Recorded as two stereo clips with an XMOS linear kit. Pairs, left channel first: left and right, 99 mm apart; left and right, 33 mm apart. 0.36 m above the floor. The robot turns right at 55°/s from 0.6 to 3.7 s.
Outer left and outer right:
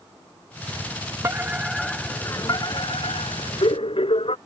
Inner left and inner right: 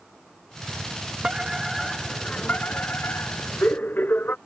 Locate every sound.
1.2 s a fire alarm: 30° right; by 4.4 s 110° left